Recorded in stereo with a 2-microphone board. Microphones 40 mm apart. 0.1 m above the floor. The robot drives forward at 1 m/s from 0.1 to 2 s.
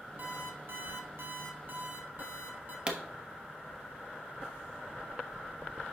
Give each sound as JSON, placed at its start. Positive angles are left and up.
{"t": 0.2, "sound": "an alarm clock", "side_deg": -45, "distance_m": 1.5}
{"t": 2.9, "sound": "a pop", "side_deg": -25, "distance_m": 1.1}